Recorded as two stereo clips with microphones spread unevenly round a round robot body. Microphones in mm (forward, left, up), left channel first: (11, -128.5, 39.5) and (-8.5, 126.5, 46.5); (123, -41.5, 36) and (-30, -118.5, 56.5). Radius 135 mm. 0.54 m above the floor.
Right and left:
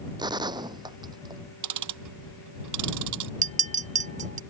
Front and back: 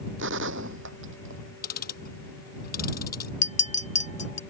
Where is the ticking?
80° left.